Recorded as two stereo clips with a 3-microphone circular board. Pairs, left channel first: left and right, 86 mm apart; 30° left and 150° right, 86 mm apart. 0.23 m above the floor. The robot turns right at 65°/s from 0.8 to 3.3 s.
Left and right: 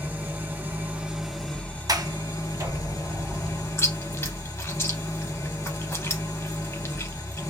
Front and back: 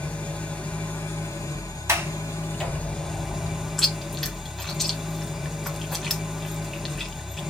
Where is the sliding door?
105° right, 0.6 m; by 3.7 s 15° right, 0.6 m.